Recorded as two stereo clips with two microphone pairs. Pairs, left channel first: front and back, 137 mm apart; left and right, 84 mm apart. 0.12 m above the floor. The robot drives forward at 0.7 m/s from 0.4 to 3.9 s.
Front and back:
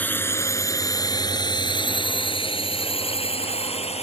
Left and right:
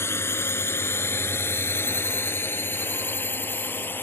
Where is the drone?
65° left; by 4.0 s 30° left.